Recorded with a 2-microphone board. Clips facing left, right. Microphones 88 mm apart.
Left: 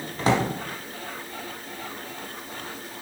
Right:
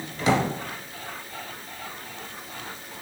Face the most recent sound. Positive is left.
turn(degrees=40)  # may be behind; listen again after turning